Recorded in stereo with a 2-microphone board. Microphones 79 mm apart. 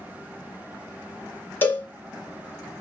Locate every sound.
1.6 s a cowbell: 25° left (ahead or behind), 0.8 m